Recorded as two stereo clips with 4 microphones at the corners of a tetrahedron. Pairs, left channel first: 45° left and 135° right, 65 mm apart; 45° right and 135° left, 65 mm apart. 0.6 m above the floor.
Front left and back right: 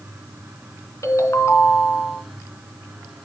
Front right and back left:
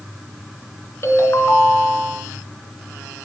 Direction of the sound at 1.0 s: 5° left.